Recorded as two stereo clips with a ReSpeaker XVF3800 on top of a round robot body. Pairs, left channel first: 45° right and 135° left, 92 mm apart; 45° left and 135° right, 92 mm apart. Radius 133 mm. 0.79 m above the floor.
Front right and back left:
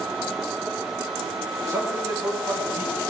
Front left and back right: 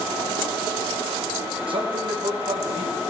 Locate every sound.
1.7 s a man speaking: 165° right, 3 m; by 3.0 s 160° right, 4 m